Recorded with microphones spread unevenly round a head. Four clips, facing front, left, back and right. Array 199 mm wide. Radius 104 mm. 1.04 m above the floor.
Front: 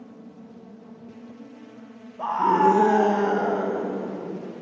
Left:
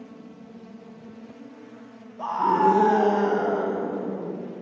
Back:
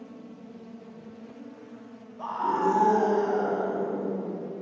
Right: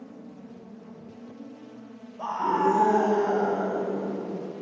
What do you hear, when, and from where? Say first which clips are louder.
2.2 s a scream: left 4 dB, front 7 dB; 15° left, 0.8 m; by 4.4 s 40° left, 2.5 m